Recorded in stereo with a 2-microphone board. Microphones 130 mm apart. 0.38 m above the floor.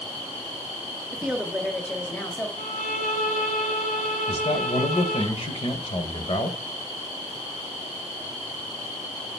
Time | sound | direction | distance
1.1 | a woman speaking | 10° right (ahead or behind) | 0.8 m
2.6 | a violin | 85° left | 1.2 m
4.3 | a man speaking | 45° left (ahead or behind) | 1.5 m